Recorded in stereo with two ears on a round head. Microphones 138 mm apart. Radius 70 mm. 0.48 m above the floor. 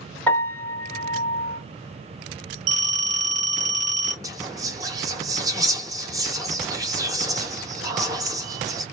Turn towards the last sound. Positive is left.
turn(degrees=-25)  # may be behind; listen again after turning